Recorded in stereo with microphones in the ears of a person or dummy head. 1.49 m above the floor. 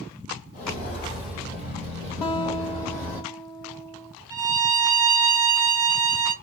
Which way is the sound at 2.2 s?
25° left (ahead or behind).